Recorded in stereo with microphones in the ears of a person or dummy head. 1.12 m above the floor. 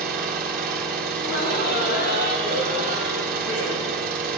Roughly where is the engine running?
Right.